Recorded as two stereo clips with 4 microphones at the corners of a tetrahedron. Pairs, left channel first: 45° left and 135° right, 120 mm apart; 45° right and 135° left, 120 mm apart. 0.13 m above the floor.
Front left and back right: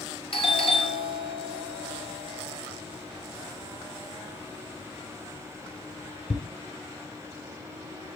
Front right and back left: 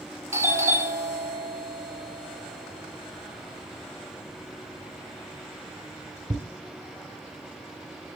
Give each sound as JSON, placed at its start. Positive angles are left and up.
{"t": 0.3, "sound": "a doorbell", "azimuth_deg": 75, "distance_m": 3.0}